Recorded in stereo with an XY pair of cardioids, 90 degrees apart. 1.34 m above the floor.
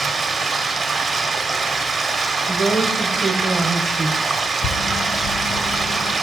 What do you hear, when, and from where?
0.0 s running water: 45° right, 0.8 m
2.5 s a woman speaking: 40° right, 0.8 m
4.6 s a bird: 65° left, 0.8 m